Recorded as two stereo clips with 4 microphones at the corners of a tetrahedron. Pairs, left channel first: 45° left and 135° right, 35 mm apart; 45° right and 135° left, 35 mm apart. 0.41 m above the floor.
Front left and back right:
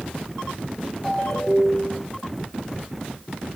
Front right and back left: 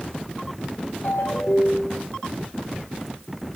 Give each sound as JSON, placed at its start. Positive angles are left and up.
{"t": 1.0, "sound": "a ringtone", "azimuth_deg": -40, "distance_m": 7.0}